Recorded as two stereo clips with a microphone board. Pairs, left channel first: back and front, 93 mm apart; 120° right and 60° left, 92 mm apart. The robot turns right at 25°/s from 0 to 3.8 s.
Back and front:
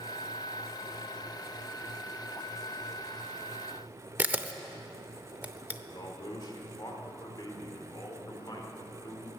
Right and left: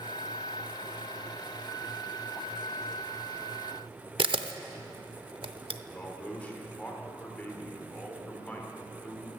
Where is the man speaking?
170° left, 1.9 m.